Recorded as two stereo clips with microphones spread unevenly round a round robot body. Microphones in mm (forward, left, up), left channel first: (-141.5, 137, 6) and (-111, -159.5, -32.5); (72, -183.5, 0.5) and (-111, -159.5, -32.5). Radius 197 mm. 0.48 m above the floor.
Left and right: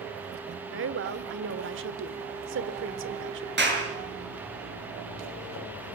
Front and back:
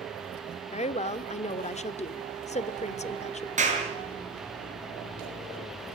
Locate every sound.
0.7 s a woman speaking: 60° right, 1.1 m
3.6 s a clap: 140° right, 7 m